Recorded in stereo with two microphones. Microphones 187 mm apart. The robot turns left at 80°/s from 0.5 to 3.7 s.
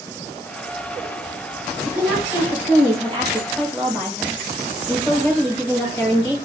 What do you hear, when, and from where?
1.9 s a woman speaking: 40° right, 5 m; by 6.4 s 170° left, 5 m